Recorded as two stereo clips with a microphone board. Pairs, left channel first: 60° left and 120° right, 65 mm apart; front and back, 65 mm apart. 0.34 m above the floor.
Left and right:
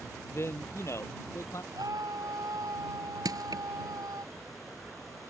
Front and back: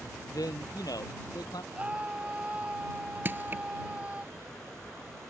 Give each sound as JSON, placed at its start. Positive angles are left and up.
{"t": 0.3, "sound": "a man speaking", "azimuth_deg": 15}
{"t": 1.7, "sound": "a scream", "azimuth_deg": -110}
{"t": 3.2, "sound": "crushing", "azimuth_deg": -125}